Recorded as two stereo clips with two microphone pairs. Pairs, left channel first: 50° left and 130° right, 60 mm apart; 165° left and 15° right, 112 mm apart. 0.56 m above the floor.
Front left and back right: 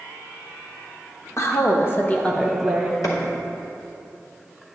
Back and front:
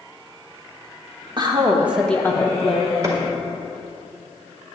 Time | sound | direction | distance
1.4 | a woman speaking | 30° left | 1.1 m
3.0 | a clap | 45° left | 1.6 m